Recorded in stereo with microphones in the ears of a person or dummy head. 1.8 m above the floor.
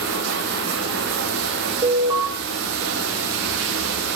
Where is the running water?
60° right (ahead or behind), 1.2 m.